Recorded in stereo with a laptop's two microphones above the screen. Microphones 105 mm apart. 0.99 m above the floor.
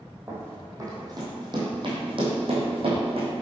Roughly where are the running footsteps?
Right.